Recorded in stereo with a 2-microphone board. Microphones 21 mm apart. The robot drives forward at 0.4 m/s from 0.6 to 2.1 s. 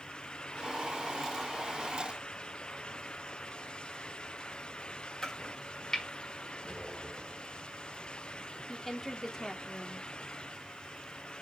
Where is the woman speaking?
20° left (ahead or behind), 1.3 m.